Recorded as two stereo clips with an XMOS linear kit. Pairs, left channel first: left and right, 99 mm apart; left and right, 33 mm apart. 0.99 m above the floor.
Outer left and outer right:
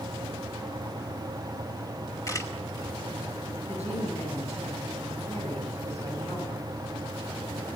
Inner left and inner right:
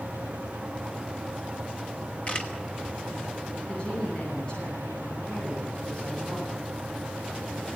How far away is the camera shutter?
About 2.5 m.